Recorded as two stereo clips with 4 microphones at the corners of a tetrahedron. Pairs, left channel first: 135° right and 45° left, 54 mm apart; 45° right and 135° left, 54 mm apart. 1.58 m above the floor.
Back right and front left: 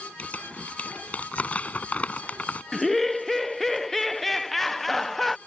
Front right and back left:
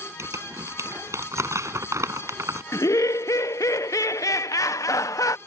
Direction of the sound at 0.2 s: 160° left.